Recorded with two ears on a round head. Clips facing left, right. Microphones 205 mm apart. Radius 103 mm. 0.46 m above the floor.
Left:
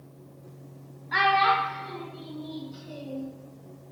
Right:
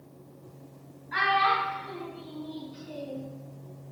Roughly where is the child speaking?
Left.